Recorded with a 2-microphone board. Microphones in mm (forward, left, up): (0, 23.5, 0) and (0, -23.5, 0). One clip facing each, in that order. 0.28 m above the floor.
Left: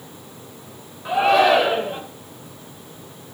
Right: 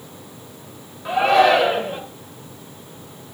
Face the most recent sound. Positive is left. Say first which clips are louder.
# right 1 dB
turn(degrees=0)  # may be behind; listen again after turning